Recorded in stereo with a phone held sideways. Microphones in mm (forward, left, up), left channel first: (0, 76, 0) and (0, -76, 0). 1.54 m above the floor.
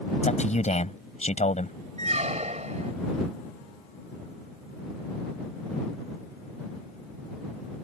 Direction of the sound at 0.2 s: 45° left (ahead or behind).